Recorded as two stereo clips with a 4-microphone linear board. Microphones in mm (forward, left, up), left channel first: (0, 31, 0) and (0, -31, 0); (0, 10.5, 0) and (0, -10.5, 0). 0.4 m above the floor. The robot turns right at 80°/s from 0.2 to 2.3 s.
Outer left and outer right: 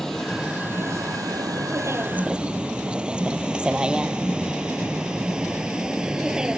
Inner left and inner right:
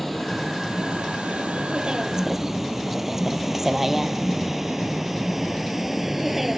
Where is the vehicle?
5° left (ahead or behind); by 6.6 s 10° right (ahead or behind).